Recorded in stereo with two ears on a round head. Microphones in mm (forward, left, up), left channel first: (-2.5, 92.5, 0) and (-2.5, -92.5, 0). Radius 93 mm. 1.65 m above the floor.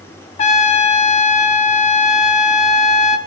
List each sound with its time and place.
0.4 s a trumpet: 35° left (ahead or behind), 0.7 m